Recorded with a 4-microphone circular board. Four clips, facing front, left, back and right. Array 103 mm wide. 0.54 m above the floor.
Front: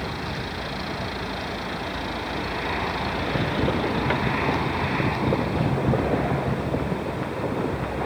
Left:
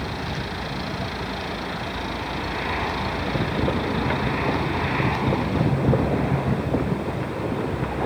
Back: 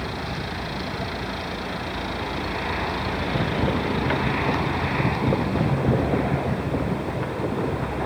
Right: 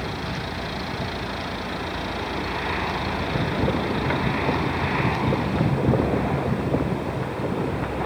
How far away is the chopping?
No chopping in this recording.